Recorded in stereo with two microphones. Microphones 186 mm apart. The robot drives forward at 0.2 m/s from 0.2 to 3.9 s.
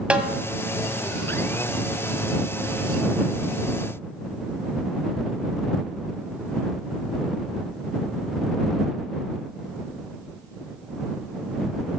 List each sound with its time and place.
0.1 s a snare drum: 5° right (ahead or behind), 1.7 m